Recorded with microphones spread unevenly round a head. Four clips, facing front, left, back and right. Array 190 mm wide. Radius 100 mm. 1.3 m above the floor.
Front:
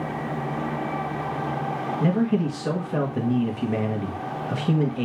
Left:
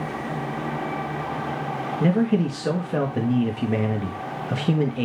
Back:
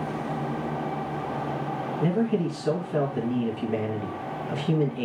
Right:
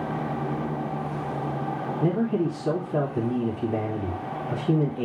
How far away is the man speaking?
About 1.9 m.